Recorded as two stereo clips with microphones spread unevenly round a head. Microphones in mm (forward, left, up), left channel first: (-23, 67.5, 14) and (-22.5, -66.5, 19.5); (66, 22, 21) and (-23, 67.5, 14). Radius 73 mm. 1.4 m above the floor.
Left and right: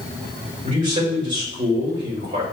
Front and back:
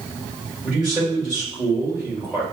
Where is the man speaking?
120° right, 2 m.